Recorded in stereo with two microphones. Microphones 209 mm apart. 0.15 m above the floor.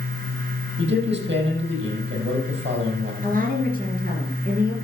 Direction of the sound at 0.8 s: 55° right (ahead or behind).